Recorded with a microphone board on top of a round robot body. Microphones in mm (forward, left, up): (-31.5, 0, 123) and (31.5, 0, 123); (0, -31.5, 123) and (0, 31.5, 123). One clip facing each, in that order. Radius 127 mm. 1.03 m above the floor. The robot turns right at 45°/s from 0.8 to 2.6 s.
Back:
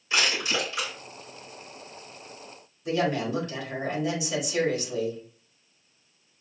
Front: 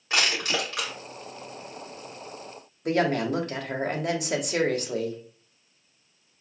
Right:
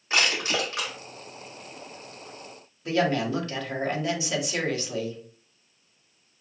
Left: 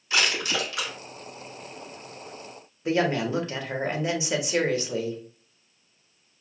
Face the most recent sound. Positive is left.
turn(degrees=25)